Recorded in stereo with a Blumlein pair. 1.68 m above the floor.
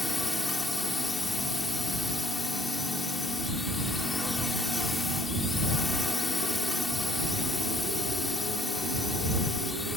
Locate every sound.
0.0 s a drone: 10° left